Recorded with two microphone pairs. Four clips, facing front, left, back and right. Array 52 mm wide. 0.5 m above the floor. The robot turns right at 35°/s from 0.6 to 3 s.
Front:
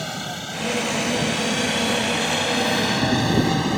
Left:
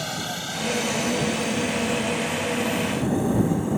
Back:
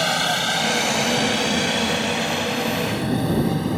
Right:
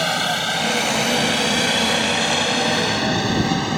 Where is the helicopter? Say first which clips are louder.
Right 9 dB, back 9 dB; 130° right; by 3.8 s 60° right.